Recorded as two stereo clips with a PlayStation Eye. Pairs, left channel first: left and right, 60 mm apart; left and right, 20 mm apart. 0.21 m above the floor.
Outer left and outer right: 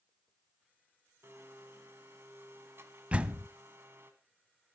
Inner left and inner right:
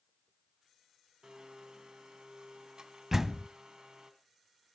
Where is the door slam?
20° right (ahead or behind), 0.7 m.